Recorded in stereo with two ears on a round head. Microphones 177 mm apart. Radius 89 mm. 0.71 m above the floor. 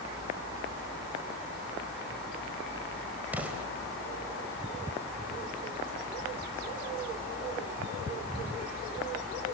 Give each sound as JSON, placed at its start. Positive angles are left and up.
{"t": 3.3, "sound": "an explosion", "side_deg": -5, "distance_m": 3.5}